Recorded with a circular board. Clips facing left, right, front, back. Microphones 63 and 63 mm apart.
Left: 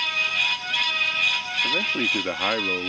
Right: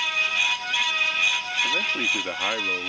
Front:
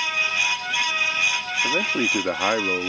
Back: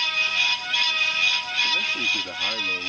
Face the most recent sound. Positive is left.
turn(degrees=20)